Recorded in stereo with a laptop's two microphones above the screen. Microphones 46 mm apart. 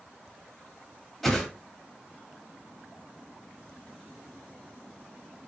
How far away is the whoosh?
About 0.8 m.